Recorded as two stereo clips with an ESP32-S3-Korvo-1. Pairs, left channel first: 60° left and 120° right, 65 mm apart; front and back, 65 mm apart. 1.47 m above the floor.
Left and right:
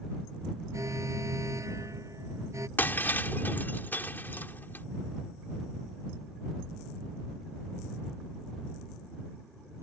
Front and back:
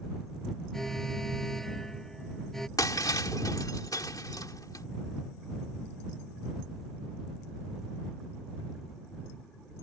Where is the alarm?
85° right.